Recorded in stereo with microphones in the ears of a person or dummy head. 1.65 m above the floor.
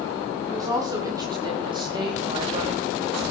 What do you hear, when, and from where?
0.5 s a woman speaking: 20° right (ahead or behind), 5 m; by 3.2 s 35° right (ahead or behind), 3.5 m